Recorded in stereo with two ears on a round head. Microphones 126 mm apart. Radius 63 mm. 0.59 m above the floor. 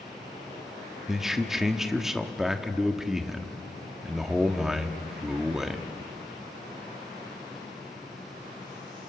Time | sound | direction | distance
1.1 | a man speaking | 5° right (ahead or behind) | 1.2 m